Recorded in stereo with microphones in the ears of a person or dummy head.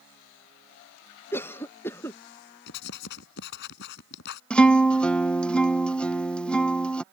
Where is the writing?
70° left (ahead or behind).